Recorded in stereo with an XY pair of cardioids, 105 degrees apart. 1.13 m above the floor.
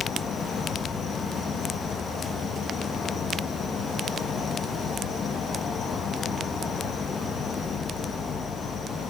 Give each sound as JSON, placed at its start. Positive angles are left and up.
{"t": 0.0, "sound": "an insect", "azimuth_deg": 45, "distance_m": 1.1}